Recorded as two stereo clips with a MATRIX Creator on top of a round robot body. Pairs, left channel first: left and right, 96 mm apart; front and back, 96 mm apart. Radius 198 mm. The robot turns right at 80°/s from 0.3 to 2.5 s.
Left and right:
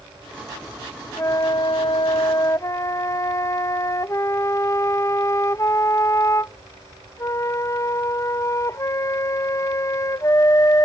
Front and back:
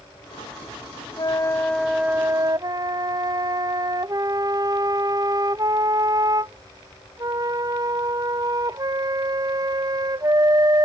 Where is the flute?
35° left; by 10.9 s 140° left.